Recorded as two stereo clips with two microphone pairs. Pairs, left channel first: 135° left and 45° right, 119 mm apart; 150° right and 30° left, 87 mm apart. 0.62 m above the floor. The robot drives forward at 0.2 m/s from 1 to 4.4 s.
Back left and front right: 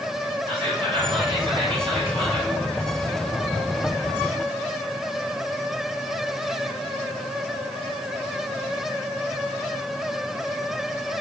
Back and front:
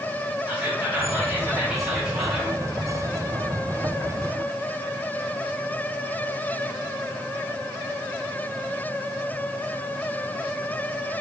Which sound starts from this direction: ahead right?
Whispering, at 0.5 s.